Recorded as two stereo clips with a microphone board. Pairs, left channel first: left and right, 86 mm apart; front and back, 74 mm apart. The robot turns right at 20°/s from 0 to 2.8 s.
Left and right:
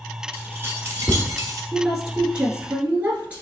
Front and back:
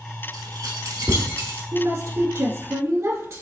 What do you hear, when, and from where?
0.3 s keys jangling: 155° right, 1.4 m; by 1.6 s 125° right, 1.4 m
1.7 s a woman speaking: 165° right, 1.5 m; by 3.4 s 140° right, 1.5 m